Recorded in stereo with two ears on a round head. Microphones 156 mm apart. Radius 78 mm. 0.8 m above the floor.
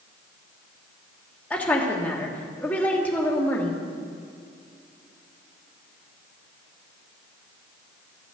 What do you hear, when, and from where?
1.5 s a woman speaking: 10° left (ahead or behind), 1.4 m